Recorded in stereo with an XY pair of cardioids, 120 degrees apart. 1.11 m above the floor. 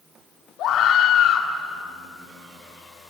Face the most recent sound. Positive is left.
turn(degrees=70)